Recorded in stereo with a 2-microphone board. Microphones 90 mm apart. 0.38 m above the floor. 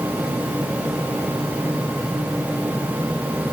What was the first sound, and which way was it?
Only background noise.